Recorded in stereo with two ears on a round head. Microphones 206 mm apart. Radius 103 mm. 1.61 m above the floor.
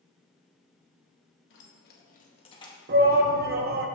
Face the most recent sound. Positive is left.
turn(degrees=-40)  # may be behind; listen again after turning